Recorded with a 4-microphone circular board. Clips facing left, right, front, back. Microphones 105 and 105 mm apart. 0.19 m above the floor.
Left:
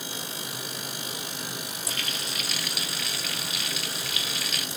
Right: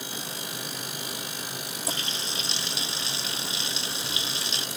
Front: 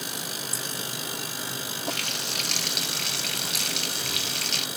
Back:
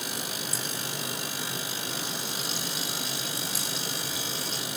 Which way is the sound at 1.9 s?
25° right.